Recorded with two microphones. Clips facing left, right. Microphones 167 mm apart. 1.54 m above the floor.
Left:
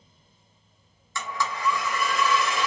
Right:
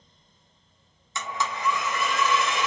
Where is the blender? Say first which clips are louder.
Even; 20° right (ahead or behind), 0.8 m.